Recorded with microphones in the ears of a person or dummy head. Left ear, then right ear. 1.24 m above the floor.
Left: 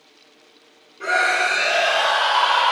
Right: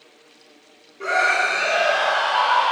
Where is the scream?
5° right (ahead or behind), 2.5 m; by 2.7 s 35° left (ahead or behind), 3.5 m.